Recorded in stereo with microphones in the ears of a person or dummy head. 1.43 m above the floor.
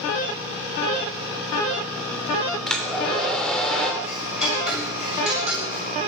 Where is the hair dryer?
5° left (ahead or behind), 2.5 m.